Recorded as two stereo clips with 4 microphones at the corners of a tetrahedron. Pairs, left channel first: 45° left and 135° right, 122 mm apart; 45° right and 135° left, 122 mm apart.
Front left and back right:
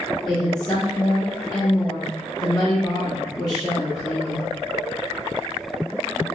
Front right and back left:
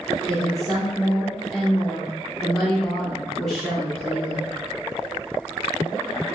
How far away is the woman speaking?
About 1.0 m.